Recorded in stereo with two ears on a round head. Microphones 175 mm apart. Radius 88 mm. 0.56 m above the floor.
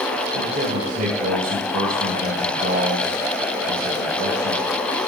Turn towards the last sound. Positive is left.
turn(degrees=-45)  # may be behind; listen again after turning